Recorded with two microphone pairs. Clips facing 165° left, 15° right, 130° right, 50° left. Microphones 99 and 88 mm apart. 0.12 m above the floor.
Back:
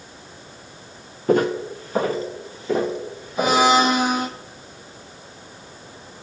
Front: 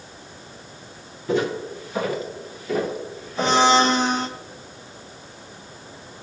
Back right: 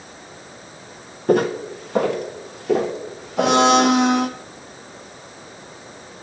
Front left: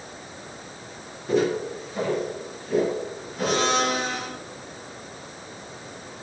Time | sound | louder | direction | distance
1.3 | footsteps | back 4 dB, back right 4 dB | 155° right | 1.4 m
3.4 | a blender | back 1 dB, back right 9 dB | 115° right | 0.8 m